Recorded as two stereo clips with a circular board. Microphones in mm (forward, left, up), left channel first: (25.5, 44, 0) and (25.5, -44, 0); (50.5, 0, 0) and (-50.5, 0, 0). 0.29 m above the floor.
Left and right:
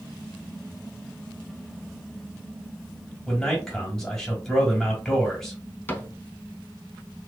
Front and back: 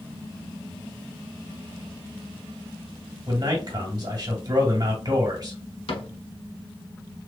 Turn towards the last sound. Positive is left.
turn(degrees=25)